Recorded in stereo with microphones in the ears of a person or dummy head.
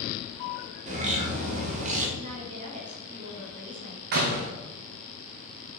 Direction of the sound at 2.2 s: 40° right (ahead or behind).